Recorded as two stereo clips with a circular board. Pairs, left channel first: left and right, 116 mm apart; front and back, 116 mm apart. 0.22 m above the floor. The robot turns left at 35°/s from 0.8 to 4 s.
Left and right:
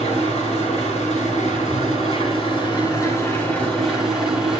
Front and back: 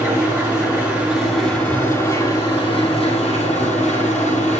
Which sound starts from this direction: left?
An engine running, at 0.0 s.